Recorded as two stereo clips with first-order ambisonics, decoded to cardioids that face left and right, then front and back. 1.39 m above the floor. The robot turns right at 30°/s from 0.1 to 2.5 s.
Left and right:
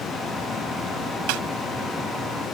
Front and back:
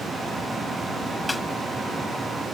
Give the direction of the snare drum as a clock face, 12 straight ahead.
3 o'clock.